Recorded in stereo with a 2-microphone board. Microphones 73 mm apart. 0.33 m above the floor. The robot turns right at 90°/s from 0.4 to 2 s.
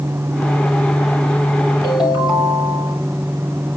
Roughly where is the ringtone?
Left.